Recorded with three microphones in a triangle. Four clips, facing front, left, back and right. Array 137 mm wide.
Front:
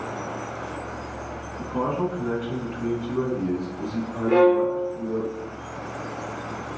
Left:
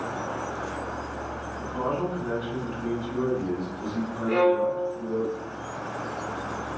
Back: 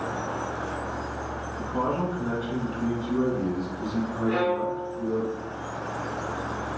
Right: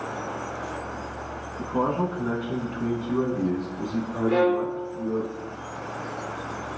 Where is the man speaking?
85° right, 8.5 m; by 5.3 s 70° right, 7.5 m.